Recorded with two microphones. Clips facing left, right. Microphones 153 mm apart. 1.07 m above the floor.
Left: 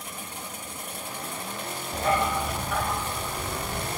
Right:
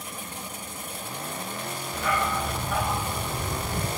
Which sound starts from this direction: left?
A dog barking, at 1.9 s.